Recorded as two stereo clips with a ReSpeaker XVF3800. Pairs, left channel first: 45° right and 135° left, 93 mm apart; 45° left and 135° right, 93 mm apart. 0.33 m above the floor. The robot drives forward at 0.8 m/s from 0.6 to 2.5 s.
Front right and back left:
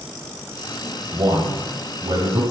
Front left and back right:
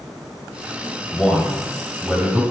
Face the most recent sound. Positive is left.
turn(degrees=145)